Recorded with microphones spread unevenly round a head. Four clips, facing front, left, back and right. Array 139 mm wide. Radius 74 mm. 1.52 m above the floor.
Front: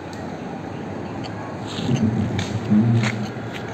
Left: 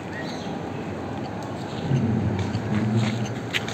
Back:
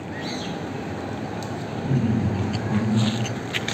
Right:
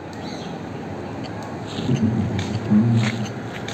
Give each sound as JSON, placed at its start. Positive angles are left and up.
{"t": 1.7, "sound": "laughter", "azimuth_deg": -70, "distance_m": 1.8}